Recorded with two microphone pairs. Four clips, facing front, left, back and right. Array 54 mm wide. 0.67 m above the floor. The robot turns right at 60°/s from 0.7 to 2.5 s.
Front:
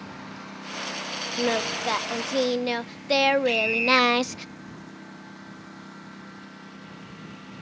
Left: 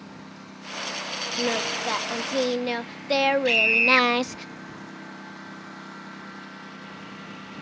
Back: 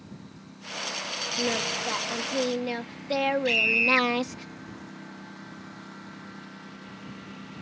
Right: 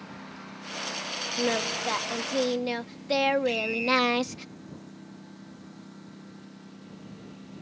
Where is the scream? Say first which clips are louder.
Left 6 dB, front 1 dB; 105° left.